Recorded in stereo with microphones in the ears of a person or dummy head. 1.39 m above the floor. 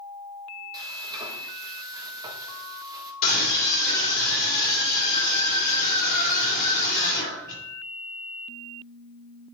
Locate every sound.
0.7 s frying: 20° right (ahead or behind), 1.7 m
3.2 s a scream: 50° left (ahead or behind), 3 m